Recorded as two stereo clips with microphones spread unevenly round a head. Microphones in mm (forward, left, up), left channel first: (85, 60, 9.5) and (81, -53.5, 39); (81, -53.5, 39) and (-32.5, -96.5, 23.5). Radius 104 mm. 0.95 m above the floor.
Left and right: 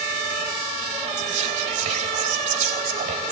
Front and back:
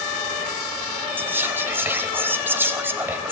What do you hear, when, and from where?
1.2 s whispering: 85° right, 4 m